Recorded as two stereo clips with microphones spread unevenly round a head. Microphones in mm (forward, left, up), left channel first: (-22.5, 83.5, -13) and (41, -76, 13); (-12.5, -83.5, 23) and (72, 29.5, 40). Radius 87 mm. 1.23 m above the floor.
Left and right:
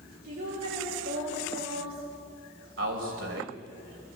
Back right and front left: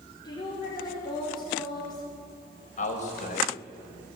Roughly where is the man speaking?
Right.